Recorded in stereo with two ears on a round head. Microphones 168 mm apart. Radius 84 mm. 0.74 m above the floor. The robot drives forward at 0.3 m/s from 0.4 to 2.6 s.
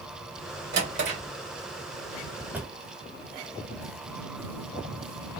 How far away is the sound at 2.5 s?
About 1.2 m.